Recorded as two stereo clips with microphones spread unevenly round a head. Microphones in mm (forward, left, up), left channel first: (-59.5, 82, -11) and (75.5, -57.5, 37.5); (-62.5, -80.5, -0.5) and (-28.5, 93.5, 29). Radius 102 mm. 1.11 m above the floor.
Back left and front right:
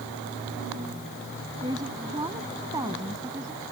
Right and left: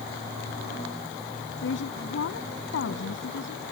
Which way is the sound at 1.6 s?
115° right.